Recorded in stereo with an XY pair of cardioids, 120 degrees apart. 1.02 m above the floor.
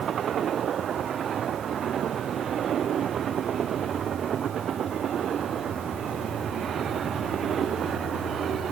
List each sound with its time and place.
Only background noise.